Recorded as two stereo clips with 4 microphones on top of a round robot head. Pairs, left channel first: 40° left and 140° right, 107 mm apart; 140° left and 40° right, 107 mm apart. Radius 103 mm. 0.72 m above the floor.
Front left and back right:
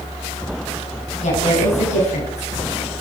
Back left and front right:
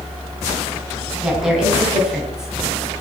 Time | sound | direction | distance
1.2 | a woman speaking | 40° left | 7.5 m